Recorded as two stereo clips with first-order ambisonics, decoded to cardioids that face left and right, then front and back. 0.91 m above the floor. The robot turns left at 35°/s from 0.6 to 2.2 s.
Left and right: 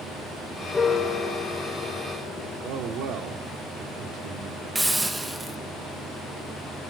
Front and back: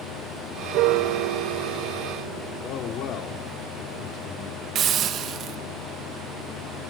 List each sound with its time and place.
0.7 s a piano: 165° left, 1.5 m; by 2.7 s 115° left, 1.5 m
2.6 s a man speaking: 45° right, 1.9 m
4.8 s a hiss: 170° right, 1.1 m